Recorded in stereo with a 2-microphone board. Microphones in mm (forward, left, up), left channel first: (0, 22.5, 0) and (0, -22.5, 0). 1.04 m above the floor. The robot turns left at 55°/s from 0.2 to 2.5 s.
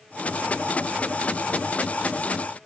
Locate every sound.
Only background noise.